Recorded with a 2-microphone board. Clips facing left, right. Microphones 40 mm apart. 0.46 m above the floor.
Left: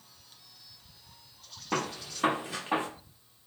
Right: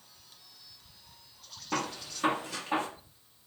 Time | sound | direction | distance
1.7 | a gunshot | 20° left (ahead or behind) | 0.9 m